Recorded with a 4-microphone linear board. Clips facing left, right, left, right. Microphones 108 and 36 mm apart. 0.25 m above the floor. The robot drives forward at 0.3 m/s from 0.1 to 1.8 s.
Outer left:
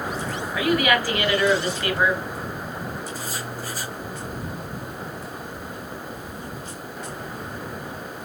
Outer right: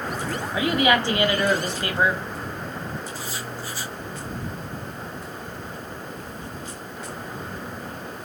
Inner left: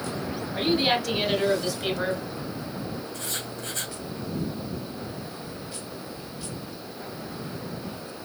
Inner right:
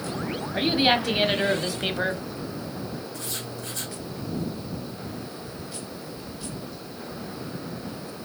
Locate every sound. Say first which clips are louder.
0.5 s a woman speaking: even, inner right 2 dB; 25° right (ahead or behind), 1.2 m; by 2.2 s 30° right (ahead or behind), 1.1 m
3.1 s writing: outer left 1 dB, inner left 1 dB; 45° left (ahead or behind), 2.5 m